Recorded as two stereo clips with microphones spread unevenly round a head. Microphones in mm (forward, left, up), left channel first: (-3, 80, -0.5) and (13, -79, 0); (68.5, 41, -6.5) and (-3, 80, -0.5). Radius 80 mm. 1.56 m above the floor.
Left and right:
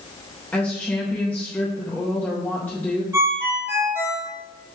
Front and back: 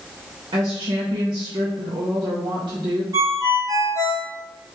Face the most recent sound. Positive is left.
turn(degrees=-155)